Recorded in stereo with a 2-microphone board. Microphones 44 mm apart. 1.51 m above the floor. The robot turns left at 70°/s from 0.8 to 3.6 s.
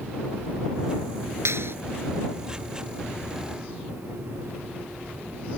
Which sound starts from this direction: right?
A clap, at 1.4 s.